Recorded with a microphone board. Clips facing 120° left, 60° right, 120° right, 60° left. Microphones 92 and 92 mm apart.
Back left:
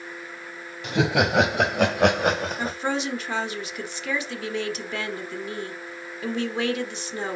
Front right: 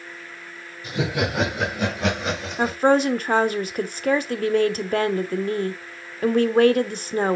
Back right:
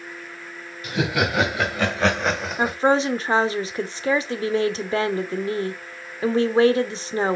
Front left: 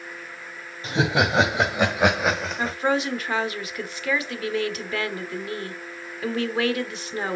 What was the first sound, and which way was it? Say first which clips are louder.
Laughter: back left 3 dB, front left 1 dB; 120° left.